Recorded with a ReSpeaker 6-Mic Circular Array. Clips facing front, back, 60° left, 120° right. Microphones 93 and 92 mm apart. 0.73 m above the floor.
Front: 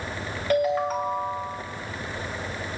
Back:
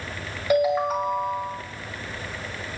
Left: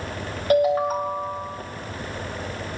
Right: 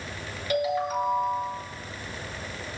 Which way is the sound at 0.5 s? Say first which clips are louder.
Back 2 dB, left 7 dB; 100° left.